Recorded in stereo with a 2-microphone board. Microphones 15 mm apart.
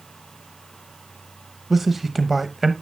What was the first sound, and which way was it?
A man speaking, 15° right (ahead or behind).